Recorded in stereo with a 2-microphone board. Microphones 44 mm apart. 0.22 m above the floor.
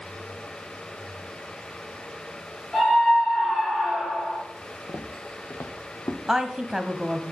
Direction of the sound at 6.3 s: 15° right (ahead or behind).